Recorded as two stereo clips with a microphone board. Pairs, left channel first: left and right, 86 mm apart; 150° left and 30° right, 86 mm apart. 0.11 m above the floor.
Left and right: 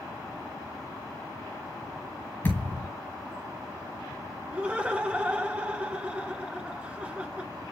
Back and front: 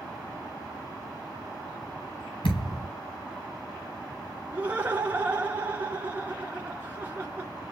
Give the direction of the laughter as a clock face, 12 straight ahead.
2 o'clock.